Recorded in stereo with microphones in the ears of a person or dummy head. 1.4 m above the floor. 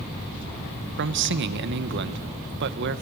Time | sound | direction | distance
1.0 | a man speaking | 60° right (ahead or behind) | 1.0 m